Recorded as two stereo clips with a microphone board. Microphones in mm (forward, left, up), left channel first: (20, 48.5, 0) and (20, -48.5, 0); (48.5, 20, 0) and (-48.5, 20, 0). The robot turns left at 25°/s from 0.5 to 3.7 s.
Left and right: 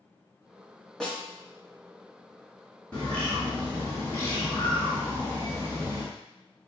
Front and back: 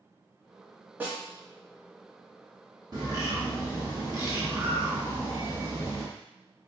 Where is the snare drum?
160° left, 1.1 m; by 1.2 s 155° left, 1.1 m.